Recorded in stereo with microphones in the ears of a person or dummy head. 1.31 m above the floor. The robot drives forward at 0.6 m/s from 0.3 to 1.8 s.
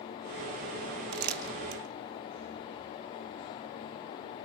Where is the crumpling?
60° right (ahead or behind), 3 m; by 1.8 s 55° right (ahead or behind), 3 m.